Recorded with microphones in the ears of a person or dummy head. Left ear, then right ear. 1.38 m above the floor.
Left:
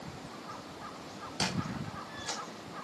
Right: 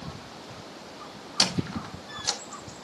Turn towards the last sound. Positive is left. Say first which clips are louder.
# right 9 dB
turn(degrees=-35)  # may be behind; listen again after turning